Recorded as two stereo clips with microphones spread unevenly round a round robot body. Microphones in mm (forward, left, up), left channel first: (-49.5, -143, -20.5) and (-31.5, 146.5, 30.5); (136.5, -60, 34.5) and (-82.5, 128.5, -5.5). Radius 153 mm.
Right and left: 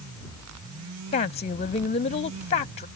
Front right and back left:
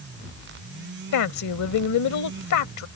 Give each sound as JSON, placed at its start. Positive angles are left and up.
{"t": 1.1, "sound": "a woman speaking", "azimuth_deg": -40}